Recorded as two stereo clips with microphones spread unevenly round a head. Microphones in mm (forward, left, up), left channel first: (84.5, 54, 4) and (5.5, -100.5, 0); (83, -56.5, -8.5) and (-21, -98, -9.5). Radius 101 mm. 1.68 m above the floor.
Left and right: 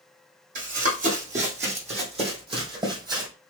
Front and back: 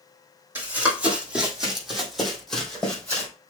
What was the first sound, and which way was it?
Running footsteps, 85° right.